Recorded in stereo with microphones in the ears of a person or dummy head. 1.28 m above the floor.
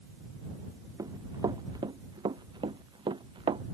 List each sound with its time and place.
1.0 s running footsteps: 20° right (ahead or behind); by 3.6 s 25° right (ahead or behind)